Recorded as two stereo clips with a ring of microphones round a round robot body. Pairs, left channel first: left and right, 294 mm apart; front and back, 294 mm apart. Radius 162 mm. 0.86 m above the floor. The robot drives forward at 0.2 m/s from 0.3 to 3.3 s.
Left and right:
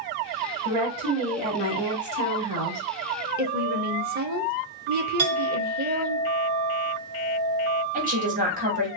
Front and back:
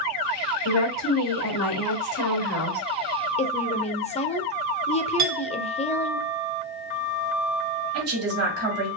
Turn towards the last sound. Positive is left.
turn(degrees=-150)